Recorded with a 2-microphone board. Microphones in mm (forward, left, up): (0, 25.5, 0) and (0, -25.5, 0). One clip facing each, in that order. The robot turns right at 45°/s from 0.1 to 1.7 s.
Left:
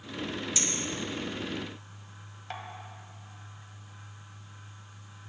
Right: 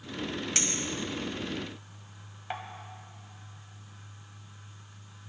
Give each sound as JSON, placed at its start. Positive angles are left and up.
{"t": 0.6, "sound": "a clink", "side_deg": -55, "distance_m": 1.4}